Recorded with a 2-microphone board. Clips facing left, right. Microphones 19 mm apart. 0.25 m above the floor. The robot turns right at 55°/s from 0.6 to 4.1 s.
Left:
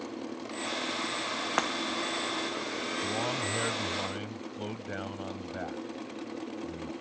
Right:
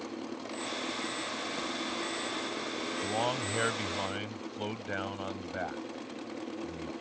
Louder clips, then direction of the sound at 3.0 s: Right 1 dB; 25° right (ahead or behind).